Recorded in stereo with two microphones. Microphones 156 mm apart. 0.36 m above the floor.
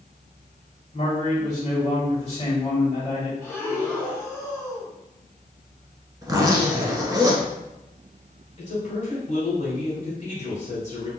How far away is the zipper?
About 0.9 m.